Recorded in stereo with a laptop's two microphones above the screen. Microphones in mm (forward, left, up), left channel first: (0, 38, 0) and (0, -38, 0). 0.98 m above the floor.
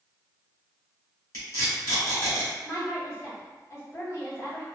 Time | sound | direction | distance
1.3 | tape being pulled | 45° left (ahead or behind) | 1.8 m
2.6 | a woman speaking | 40° left (ahead or behind) | 1.3 m